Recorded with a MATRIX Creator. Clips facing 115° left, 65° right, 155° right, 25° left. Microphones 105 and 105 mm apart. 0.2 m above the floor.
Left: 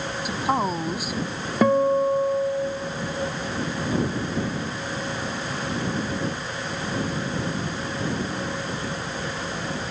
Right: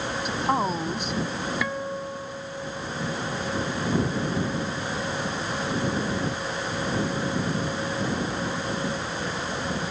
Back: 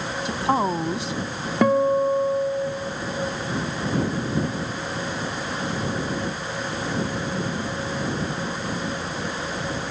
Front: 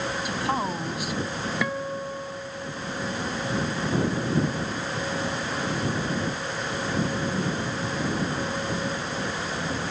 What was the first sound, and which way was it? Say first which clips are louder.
A woman speaking: left 1 dB, back 7 dB; 170° right.